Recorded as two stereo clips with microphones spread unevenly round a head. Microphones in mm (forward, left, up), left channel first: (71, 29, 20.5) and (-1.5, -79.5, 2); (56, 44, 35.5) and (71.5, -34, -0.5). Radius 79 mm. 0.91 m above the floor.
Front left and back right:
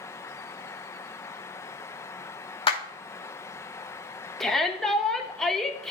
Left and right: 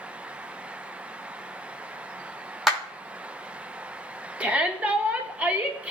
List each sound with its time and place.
2.7 s a clap: 10° left, 2.5 m
4.4 s a shout: 40° right, 1.2 m